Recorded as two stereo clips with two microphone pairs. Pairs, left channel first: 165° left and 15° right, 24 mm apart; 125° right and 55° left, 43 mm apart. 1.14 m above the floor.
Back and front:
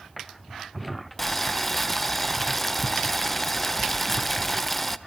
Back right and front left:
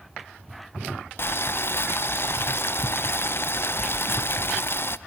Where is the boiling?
115° right, 0.5 m.